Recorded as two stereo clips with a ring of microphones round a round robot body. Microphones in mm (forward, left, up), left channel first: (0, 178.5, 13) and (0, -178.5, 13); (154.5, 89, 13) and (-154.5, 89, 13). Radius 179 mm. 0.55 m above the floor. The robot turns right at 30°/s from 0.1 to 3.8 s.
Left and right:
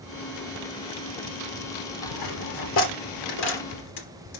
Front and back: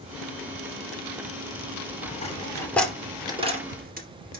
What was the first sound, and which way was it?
A dropped coin, 65° left.